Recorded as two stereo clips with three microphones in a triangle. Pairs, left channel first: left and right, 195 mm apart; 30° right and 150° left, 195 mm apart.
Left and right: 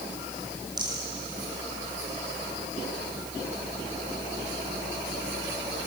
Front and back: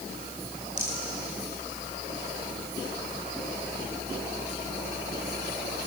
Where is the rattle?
160° right, 3.5 m.